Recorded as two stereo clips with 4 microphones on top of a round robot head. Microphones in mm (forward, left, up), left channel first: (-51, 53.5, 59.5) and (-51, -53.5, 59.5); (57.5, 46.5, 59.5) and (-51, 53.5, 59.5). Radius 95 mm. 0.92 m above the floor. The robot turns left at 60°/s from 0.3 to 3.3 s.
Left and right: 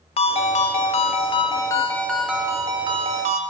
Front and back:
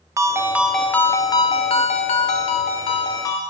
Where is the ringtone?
110° left, 0.5 m; by 3.4 s 70° right, 0.5 m.